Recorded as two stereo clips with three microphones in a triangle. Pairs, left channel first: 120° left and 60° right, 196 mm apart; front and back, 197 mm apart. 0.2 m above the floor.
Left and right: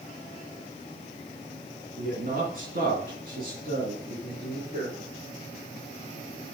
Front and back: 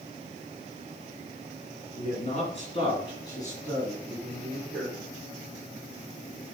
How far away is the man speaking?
About 2 m.